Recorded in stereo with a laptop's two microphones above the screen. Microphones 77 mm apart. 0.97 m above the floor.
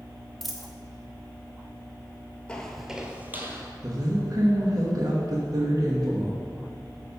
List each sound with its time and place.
0.4 s a dropped coin: centre (ahead or behind), 0.7 m
2.5 s footsteps: 15° left (ahead or behind), 0.9 m; by 3.7 s 30° right (ahead or behind), 1.5 m
3.8 s a woman speaking: 55° right (ahead or behind), 1.0 m